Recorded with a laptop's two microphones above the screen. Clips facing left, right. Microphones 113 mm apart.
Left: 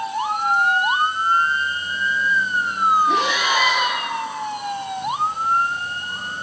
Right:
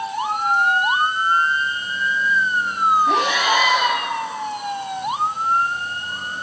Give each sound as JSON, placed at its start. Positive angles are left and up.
{"t": 3.1, "sound": "breathing", "side_deg": -65, "distance_m": 2.5}